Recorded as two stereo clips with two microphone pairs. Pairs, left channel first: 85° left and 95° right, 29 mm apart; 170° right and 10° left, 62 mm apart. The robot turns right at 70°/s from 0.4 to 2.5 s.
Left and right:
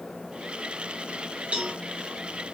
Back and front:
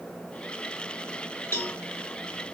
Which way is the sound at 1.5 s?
120° right.